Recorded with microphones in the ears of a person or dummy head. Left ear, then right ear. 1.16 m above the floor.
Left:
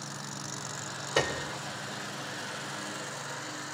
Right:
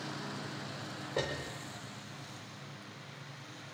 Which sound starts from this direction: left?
A piano, at 1.2 s.